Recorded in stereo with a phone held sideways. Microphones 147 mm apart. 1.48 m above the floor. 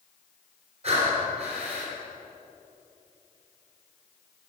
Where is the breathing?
50° right (ahead or behind), 3.5 m.